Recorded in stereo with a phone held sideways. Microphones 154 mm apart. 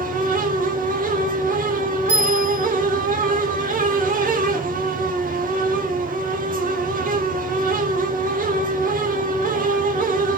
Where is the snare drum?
No snare drum in this recording.